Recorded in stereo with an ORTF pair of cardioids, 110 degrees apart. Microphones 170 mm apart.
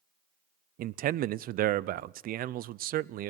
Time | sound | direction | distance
0.8 | a man speaking | 60° right | 0.6 m